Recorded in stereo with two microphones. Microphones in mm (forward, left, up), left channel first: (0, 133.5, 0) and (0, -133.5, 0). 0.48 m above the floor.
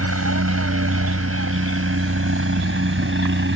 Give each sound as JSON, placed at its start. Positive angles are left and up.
{"t": 0.0, "sound": "a helicopter", "side_deg": -60}